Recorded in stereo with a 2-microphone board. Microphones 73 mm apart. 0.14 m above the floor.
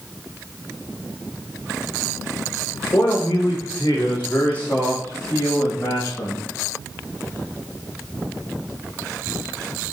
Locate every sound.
2.9 s a man speaking: 40° left (ahead or behind), 6.5 m; by 6.5 s 45° left (ahead or behind), 4.5 m